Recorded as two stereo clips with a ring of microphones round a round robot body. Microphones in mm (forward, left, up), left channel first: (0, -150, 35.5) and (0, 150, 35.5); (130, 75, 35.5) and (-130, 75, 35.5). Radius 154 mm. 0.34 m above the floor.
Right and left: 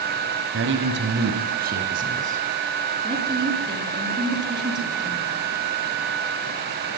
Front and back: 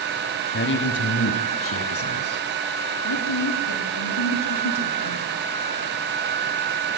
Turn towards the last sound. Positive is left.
turn(degrees=15)